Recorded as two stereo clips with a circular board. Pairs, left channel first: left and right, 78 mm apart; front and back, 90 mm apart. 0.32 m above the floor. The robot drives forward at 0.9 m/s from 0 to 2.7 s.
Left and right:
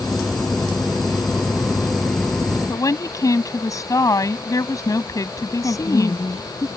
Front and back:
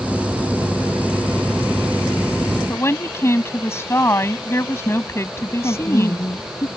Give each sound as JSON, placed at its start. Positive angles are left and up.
{"t": 2.7, "sound": "a woman speaking", "azimuth_deg": 55}
{"t": 5.6, "sound": "a woman speaking", "azimuth_deg": 50}